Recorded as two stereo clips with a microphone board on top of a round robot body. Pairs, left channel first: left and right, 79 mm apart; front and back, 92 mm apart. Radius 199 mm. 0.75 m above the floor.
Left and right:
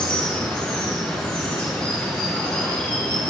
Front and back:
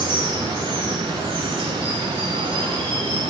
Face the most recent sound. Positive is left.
turn(degrees=165)